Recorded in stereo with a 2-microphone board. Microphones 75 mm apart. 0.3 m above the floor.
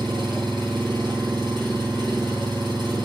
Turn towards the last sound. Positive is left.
turn(degrees=-85)